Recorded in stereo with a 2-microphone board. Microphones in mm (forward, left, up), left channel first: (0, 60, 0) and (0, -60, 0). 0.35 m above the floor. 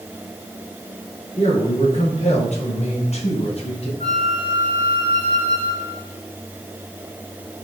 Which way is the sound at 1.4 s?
65° left (ahead or behind).